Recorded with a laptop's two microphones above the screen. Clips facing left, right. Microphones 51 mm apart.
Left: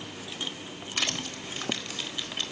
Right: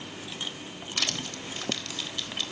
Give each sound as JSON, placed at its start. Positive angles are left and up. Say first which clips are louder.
{"t": 1.0, "sound": "crushing", "louder": "left 1 dB", "side_deg": 15, "distance_m": 4.0}